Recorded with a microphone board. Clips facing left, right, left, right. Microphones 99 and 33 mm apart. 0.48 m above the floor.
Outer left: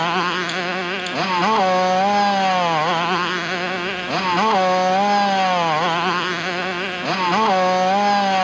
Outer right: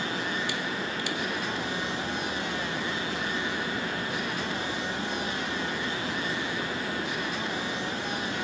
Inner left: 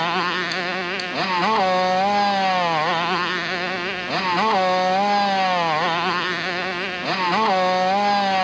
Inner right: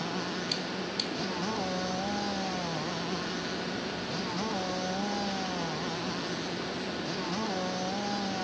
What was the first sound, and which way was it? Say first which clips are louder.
A motorcycle: outer left 11 dB, inner left 13 dB; 75° left (ahead or behind).